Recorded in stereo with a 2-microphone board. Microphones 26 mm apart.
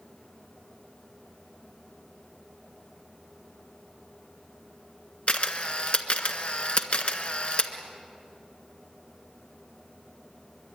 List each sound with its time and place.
5.3 s a camera shutter: 45° left (ahead or behind), 1.5 m